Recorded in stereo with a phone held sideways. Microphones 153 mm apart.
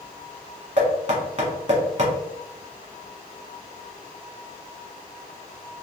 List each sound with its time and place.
0.8 s knocking: 50° right (ahead or behind), 1.3 m